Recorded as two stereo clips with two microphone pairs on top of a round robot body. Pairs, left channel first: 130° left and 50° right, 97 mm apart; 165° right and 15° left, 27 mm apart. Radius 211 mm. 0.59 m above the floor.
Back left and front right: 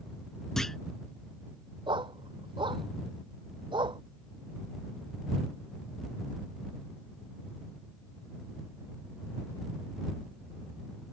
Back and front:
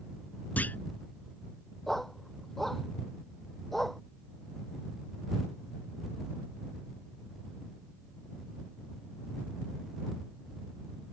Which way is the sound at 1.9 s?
85° right.